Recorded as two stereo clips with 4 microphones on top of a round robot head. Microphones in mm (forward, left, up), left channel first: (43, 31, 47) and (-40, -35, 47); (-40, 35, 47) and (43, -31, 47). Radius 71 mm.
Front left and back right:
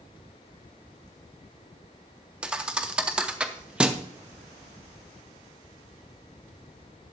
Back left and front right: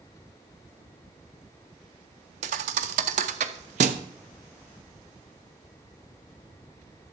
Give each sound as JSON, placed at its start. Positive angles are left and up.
{"t": 2.4, "sound": "a thud", "azimuth_deg": -60, "distance_m": 0.6}